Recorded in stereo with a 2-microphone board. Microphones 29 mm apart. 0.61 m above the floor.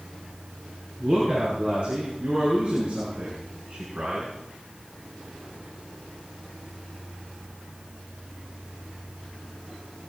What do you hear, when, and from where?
1.0 s a woman speaking: 40° right (ahead or behind), 9.5 m; by 4.3 s 55° right (ahead or behind), 5.5 m